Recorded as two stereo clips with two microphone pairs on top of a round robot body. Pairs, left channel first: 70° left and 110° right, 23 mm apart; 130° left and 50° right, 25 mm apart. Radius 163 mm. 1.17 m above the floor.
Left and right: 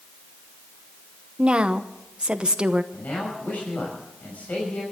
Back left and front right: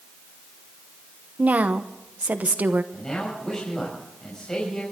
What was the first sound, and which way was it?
A woman speaking, 70° right.